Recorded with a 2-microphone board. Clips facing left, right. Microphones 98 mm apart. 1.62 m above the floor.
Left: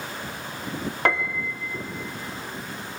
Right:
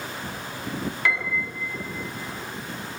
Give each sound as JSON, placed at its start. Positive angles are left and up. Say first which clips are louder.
{"t": 1.1, "sound": "a piano", "louder": "left 4 dB", "side_deg": 45, "distance_m": 1.4}